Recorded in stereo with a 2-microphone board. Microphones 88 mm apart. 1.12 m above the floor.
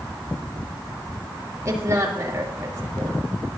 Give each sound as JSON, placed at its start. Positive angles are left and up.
{"t": 1.6, "sound": "a woman speaking", "side_deg": -35, "distance_m": 2.5}